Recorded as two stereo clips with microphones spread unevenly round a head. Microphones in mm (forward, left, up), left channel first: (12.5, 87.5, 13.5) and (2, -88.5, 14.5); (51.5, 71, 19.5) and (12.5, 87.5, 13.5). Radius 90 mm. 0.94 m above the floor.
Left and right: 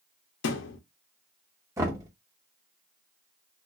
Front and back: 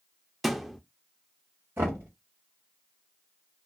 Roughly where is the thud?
Ahead left.